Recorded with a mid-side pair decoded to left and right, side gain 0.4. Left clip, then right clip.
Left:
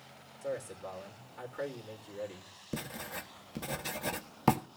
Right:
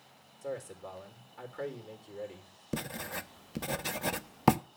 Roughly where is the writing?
Ahead right.